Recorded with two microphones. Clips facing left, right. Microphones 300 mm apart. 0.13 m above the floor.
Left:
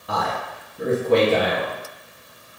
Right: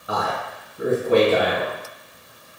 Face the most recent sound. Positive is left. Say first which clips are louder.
# right 1 dB
turn(degrees=-5)  # may be behind; listen again after turning